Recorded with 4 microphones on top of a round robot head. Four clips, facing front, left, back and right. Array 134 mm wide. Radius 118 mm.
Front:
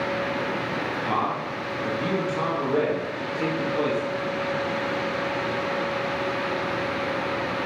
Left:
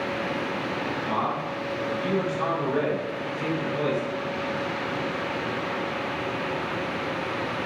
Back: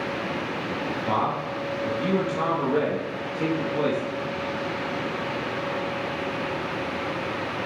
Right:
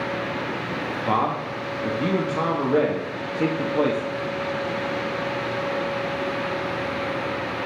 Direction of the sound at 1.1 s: 105° right.